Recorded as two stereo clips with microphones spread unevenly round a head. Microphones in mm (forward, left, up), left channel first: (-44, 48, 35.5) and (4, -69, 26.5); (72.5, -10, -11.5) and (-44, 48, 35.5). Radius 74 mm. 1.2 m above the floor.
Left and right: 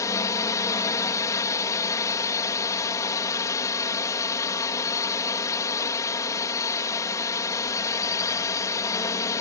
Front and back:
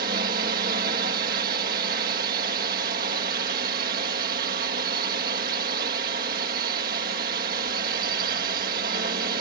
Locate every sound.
0.0 s a drone: 175° left